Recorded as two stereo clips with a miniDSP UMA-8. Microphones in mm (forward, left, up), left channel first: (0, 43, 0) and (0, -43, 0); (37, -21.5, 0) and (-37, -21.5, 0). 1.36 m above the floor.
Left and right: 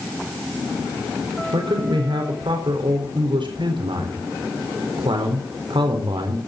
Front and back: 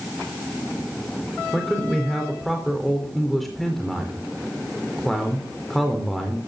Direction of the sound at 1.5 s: 90° right.